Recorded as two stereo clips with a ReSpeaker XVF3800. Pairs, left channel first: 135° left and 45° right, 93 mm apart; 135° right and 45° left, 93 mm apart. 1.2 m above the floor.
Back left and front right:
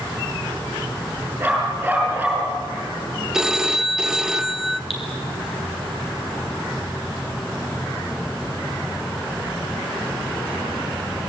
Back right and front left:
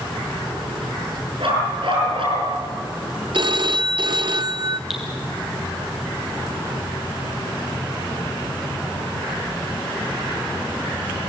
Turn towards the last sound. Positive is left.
turn(degrees=130)